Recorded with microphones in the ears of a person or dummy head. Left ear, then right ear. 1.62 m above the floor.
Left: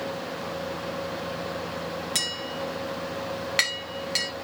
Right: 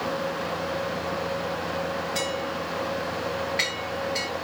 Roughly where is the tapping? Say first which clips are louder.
Right 1 dB; left.